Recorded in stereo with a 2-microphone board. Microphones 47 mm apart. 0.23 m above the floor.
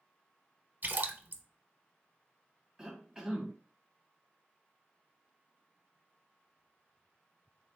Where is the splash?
50° right (ahead or behind), 0.7 m.